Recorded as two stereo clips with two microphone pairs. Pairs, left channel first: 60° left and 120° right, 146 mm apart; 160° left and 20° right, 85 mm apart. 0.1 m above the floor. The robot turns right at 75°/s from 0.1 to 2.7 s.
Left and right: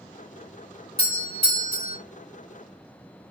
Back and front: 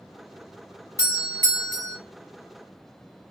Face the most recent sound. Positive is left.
turn(degrees=-40)